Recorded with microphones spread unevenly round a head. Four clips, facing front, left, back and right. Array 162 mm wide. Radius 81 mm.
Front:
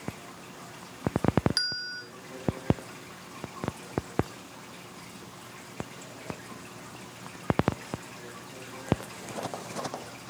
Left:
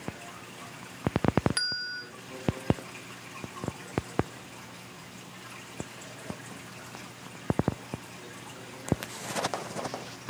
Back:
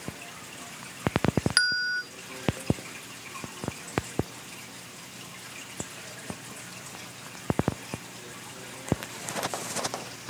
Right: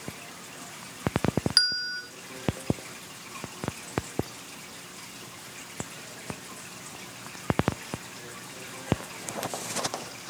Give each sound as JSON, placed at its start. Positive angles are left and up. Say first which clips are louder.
{"t": 1.6, "sound": "a bell", "louder": "right 3 dB, back 10 dB", "azimuth_deg": 175, "distance_m": 1.2}